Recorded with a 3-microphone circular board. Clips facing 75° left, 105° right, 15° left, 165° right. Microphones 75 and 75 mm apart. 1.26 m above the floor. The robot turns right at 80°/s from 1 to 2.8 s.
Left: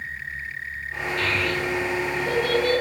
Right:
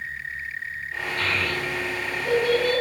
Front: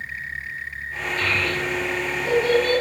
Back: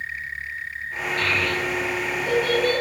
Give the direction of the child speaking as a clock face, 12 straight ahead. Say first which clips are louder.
Left 2 dB, even; 5 o'clock.